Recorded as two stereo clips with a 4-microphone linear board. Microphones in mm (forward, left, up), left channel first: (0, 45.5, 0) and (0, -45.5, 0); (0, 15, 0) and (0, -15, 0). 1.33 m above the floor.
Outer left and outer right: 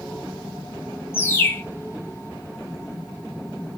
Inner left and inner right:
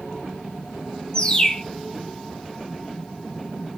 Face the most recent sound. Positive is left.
turn(degrees=25)  # may be behind; listen again after turning